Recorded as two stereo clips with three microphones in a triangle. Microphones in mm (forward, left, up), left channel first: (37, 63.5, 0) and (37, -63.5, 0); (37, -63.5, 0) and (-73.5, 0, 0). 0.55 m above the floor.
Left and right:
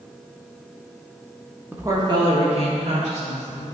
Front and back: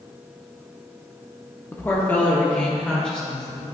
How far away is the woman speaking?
About 0.9 m.